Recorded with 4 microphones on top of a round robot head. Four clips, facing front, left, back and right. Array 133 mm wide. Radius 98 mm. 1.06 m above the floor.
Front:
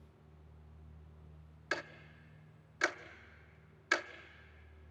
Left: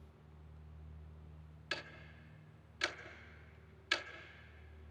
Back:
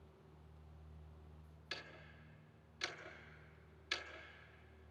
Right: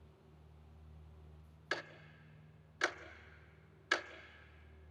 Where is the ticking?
35° right, 0.7 m.